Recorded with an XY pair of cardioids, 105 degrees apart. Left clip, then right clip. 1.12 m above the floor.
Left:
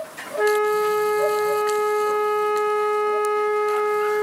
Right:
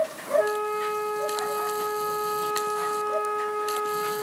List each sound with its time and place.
0.4 s a flute: 55° left, 1.1 m